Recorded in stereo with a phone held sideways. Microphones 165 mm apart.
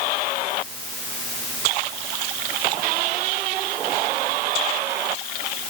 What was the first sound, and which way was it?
Only background noise.